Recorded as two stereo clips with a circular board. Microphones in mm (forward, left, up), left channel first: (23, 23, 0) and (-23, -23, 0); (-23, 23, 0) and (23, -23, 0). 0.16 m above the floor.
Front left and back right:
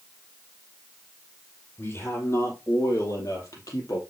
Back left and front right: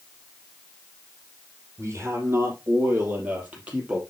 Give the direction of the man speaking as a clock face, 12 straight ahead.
12 o'clock.